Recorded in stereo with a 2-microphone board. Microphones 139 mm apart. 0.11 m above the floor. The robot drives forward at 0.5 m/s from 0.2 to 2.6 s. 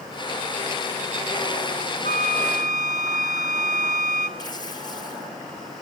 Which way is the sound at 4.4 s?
30° left (ahead or behind).